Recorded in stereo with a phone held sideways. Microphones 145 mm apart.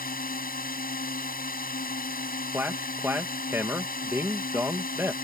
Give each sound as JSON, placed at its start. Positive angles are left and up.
{"t": 0.0, "sound": "a drone", "side_deg": 85}
{"t": 2.5, "sound": "a man speaking", "side_deg": -15}